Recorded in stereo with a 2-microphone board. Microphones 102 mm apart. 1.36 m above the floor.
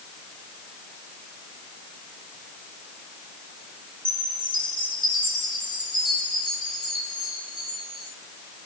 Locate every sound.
4.0 s a chime: 50° left (ahead or behind), 5.5 m